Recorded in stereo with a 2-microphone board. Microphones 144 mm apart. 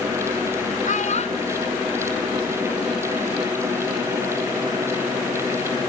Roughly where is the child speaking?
Left.